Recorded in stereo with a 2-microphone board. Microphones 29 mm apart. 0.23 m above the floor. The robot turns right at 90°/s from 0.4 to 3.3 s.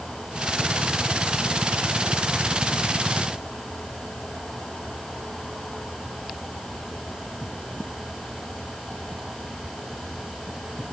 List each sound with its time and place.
Only background noise.